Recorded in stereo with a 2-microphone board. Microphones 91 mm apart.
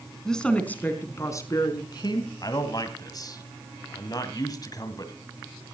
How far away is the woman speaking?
About 3 m.